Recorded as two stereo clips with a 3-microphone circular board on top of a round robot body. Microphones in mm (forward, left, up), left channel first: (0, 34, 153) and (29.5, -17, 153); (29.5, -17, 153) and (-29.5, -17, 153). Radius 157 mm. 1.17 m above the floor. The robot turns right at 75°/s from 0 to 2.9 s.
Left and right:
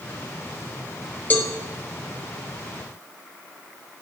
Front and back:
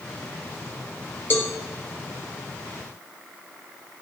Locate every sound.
1.3 s a cowbell: 55° left, 1.0 m; by 1.5 s 70° left, 1.0 m